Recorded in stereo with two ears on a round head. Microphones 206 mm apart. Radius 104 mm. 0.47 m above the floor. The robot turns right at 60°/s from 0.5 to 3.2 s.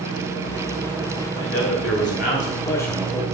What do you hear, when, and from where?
1.4 s a man speaking: 80° left, 1.8 m; by 3.2 s 170° right, 1.8 m